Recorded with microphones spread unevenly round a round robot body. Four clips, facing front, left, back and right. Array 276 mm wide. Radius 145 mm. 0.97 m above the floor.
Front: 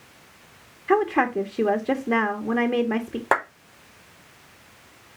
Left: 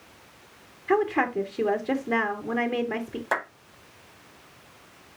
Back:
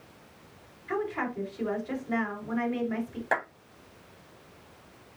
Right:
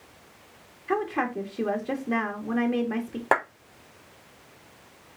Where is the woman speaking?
15° left, 2.0 m.